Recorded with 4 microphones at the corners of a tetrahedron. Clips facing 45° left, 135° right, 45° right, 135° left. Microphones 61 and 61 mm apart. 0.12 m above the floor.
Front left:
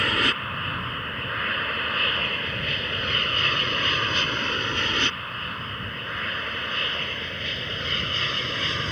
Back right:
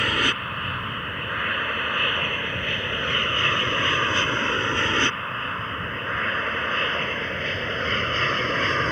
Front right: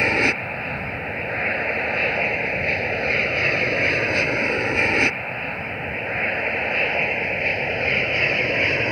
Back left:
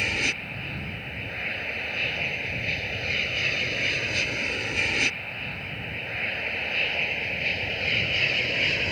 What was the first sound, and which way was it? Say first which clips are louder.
An aircraft: even, front right 8 dB; 45° right.